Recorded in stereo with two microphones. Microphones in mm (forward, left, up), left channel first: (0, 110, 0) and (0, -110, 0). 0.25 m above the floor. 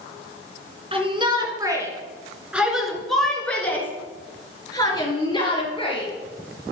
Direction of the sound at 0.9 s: 25° right (ahead or behind).